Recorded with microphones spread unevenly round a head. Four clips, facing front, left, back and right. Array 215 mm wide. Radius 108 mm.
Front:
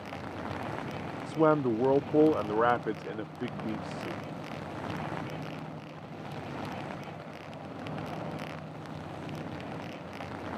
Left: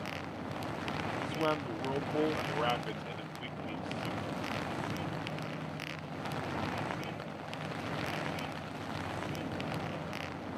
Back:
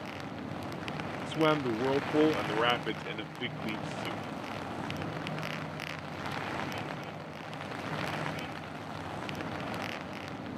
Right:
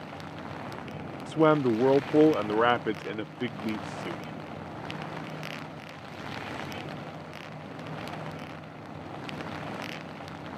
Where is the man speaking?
80° right.